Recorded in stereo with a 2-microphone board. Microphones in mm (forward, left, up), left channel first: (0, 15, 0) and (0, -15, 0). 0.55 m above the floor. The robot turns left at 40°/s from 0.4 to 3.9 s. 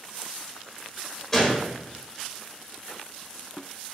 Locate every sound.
1.3 s a gunshot: 10° left (ahead or behind), 1.0 m; by 1.7 s 5° right (ahead or behind), 1.0 m